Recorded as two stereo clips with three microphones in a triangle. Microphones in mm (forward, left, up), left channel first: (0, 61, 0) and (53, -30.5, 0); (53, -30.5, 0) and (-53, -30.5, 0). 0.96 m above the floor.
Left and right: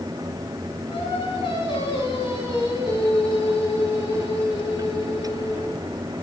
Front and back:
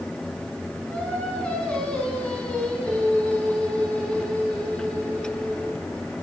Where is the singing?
80° left, 6.5 m.